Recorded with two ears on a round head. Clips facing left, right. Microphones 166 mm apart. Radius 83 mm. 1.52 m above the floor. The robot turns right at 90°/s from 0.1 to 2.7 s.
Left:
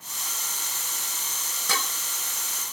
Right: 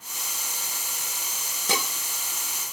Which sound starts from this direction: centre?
Dishes clattering, at 1.7 s.